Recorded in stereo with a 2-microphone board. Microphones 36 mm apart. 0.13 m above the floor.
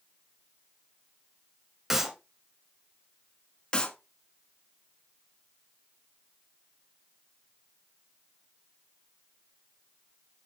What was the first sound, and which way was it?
A clap, 10° right (ahead or behind).